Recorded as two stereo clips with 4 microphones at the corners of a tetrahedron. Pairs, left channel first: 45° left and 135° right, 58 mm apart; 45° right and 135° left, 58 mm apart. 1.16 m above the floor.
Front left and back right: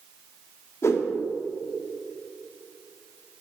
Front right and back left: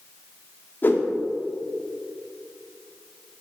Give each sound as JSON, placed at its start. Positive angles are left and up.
{"t": 0.8, "sound": "a whoosh", "azimuth_deg": 10, "distance_m": 1.5}